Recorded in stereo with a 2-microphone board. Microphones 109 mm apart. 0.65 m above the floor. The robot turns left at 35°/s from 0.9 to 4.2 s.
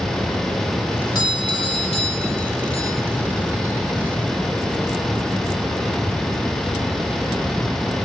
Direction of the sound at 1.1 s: 135° left.